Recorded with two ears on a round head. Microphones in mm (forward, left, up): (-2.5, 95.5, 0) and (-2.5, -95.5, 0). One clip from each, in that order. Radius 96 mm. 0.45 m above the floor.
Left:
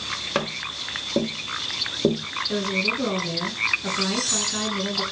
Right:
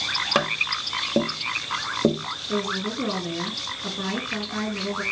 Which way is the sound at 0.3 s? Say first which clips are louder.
Right 4 dB; 25° right (ahead or behind).